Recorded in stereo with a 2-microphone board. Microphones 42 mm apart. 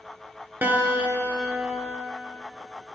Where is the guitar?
55° right (ahead or behind), 2 m.